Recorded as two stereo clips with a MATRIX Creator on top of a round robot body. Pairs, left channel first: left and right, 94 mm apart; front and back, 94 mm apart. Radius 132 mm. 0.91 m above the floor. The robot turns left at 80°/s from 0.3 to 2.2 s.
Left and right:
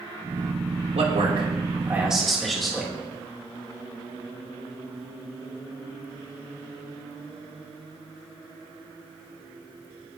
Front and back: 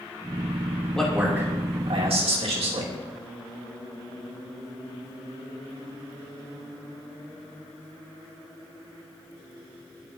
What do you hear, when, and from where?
0.9 s a man speaking: 80° right, 3 m; by 3.0 s straight behind, 3 m